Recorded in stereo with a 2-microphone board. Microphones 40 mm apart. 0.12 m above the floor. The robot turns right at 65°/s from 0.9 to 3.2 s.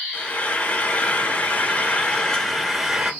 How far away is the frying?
About 0.7 m.